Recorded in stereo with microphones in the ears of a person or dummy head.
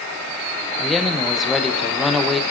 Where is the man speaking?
Centre (ahead or behind), 0.8 m.